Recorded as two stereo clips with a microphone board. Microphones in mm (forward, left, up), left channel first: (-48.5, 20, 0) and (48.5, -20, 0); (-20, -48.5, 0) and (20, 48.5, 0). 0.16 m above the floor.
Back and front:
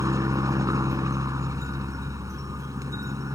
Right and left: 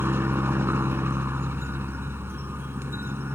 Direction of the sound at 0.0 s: 15° left.